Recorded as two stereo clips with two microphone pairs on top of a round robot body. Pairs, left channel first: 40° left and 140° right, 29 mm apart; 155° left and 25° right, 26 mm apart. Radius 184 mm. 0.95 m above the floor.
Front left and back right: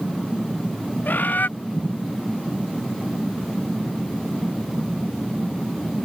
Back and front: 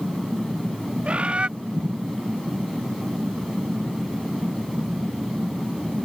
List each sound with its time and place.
1.1 s a bird: 25° left